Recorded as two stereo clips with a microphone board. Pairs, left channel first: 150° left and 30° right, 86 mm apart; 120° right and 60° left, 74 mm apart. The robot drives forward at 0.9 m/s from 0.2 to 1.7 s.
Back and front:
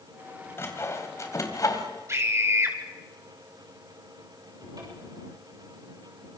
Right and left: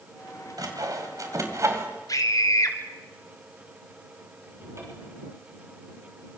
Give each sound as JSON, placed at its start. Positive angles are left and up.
{"t": 0.6, "sound": "sawing", "azimuth_deg": 90, "distance_m": 4.0}
{"t": 2.1, "sound": "a scream", "azimuth_deg": -85, "distance_m": 5.0}
{"t": 4.6, "sound": "a cupboard door", "azimuth_deg": 10, "distance_m": 8.5}